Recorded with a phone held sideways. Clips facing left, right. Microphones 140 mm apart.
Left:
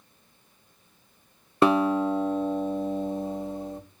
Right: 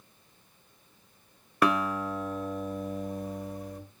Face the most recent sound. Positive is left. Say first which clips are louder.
# left 6 dB
turn(degrees=25)  # may be behind; listen again after turning